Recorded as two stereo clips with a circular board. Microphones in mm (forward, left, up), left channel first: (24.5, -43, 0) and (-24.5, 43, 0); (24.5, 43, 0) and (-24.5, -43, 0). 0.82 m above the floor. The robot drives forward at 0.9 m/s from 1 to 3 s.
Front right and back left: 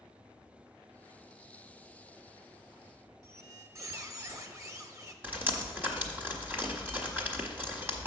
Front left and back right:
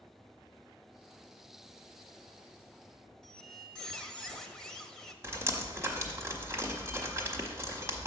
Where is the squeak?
135° left, 0.6 m.